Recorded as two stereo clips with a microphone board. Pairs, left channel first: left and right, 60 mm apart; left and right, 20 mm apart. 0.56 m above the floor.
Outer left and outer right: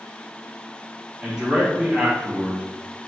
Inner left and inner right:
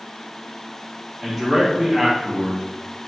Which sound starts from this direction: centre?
A man speaking, at 1.2 s.